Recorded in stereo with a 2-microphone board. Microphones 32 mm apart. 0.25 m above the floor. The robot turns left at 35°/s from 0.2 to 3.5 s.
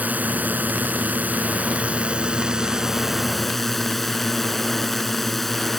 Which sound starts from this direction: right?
A drone, at 0.0 s.